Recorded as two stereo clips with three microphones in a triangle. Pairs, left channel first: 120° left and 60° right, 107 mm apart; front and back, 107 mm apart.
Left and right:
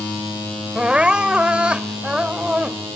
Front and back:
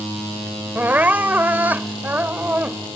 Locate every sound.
0.8 s crying: 130° right